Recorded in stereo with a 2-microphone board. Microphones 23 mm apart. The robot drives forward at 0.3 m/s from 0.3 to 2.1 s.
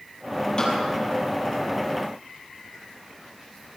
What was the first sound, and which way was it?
A snare drum, 30° left (ahead or behind).